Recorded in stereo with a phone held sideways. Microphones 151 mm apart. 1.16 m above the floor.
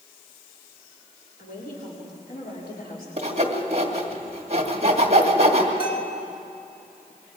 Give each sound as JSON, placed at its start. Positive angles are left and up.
{"t": 1.4, "sound": "a woman speaking", "side_deg": 75, "distance_m": 3.5}
{"t": 3.2, "sound": "sawing", "side_deg": -45, "distance_m": 2.0}
{"t": 5.8, "sound": "a bell", "side_deg": 75, "distance_m": 1.9}